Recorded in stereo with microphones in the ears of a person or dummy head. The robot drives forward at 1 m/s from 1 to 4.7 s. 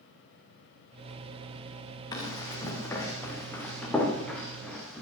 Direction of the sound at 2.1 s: 25° left (ahead or behind).